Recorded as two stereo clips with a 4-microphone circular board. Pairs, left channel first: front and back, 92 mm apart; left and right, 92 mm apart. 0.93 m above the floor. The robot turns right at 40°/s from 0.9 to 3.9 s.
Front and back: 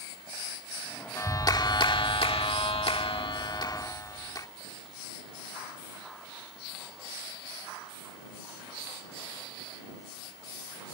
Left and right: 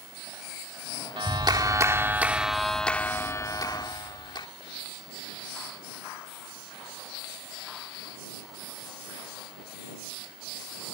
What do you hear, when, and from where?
1.2 s a clap: 60° right; by 4.5 s 50° left